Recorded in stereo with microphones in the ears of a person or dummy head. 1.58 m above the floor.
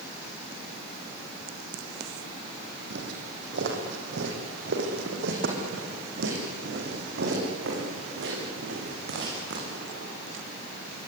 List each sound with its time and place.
2.9 s footsteps: 65° right (ahead or behind), 5 m; by 10.2 s 70° right (ahead or behind), 9.5 m